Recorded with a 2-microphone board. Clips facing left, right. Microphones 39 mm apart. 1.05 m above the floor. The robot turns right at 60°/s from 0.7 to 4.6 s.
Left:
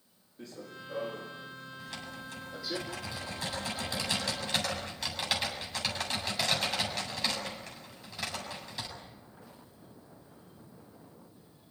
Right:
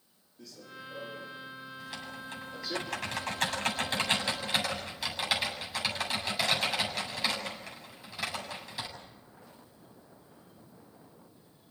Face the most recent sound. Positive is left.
turn(degrees=0)